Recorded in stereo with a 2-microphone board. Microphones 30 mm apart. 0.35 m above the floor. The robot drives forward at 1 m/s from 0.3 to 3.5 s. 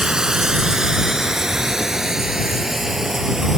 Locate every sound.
0.0 s running water: 25° right (ahead or behind); by 3.6 s 15° right (ahead or behind)